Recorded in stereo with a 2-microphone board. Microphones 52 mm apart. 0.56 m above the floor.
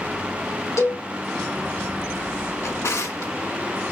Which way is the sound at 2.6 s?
70° left (ahead or behind).